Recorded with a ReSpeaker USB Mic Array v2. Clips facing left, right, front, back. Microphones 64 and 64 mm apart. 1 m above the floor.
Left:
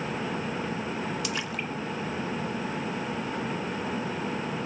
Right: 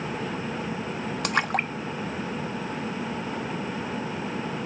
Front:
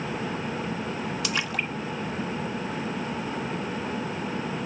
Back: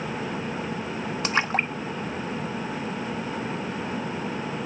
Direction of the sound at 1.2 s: 130° right.